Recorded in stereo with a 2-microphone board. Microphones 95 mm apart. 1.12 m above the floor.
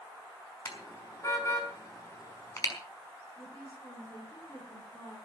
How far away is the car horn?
About 5 m.